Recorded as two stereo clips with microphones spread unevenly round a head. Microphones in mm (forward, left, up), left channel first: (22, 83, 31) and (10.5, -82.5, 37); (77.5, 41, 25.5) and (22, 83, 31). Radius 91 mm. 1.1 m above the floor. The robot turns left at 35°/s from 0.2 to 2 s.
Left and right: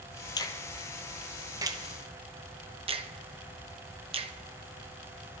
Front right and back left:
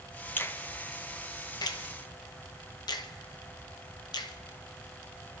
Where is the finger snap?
20° left, 0.9 m; by 4.3 s 35° right, 0.9 m.